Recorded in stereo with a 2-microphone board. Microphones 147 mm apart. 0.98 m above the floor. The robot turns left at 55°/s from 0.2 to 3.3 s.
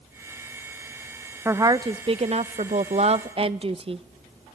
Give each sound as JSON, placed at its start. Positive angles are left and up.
{"t": 1.4, "sound": "a woman speaking", "azimuth_deg": -20, "distance_m": 0.5}